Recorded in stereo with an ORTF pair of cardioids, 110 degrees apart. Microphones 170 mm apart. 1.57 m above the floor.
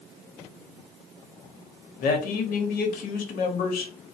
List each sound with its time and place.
2.0 s a man speaking: 65° left, 0.9 m